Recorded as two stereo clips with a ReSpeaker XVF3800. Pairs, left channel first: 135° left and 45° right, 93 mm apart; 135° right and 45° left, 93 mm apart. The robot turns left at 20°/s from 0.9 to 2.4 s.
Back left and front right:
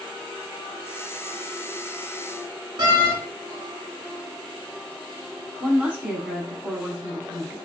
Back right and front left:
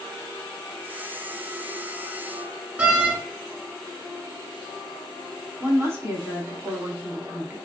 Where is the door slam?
25° right, 1.1 m.